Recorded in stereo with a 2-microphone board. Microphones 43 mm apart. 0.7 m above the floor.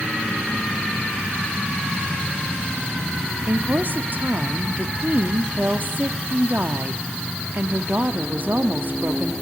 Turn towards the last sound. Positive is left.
turn(degrees=-45)  # may be behind; listen again after turning